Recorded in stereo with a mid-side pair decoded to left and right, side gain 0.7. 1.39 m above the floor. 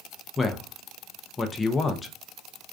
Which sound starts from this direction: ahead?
A man speaking, at 0.4 s.